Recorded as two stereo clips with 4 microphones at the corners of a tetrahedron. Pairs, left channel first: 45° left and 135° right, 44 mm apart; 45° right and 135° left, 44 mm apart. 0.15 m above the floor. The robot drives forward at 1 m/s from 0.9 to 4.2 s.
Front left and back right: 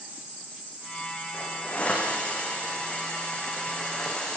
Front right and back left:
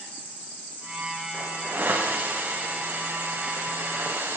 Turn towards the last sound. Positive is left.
turn(degrees=115)